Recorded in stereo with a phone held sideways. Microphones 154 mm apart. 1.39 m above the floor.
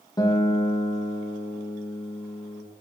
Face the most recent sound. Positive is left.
turn(degrees=25)  # may be behind; listen again after turning